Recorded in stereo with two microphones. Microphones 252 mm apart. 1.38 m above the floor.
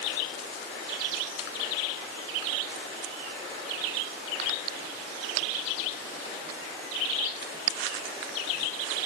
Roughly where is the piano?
I don't hear a piano.